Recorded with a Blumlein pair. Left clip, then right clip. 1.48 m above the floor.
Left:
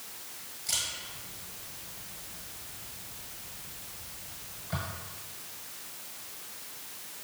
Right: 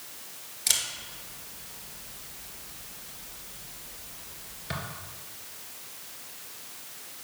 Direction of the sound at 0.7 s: 50° right.